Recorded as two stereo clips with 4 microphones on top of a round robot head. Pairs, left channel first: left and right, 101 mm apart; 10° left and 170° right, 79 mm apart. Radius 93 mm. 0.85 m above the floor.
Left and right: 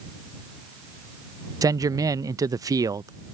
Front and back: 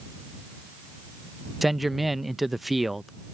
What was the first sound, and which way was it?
A man speaking, 85° right.